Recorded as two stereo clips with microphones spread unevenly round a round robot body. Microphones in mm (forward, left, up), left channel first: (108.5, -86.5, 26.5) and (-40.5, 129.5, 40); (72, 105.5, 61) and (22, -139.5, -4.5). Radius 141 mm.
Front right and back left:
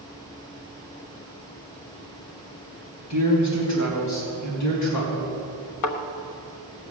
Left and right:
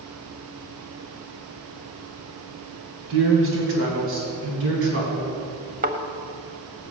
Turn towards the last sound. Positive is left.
turn(degrees=-50)